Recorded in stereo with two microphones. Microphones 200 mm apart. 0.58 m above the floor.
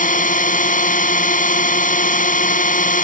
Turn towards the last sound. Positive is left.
turn(degrees=40)  # may be behind; listen again after turning